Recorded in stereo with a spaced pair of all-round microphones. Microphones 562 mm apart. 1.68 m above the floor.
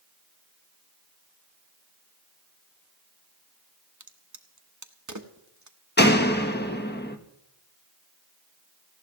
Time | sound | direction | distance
4.0 | a crack | 30° right (ahead or behind) | 1.1 m
6.0 | a door slam | 15° left (ahead or behind) | 1.1 m